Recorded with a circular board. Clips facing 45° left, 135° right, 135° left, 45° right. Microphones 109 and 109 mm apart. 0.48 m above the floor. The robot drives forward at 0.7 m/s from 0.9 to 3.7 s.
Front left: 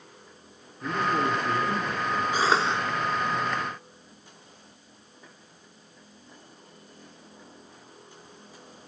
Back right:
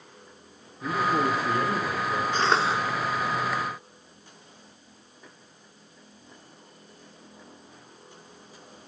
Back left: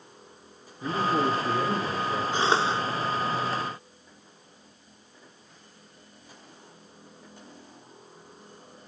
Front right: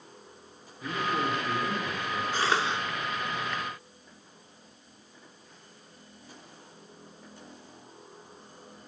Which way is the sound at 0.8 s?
140° left.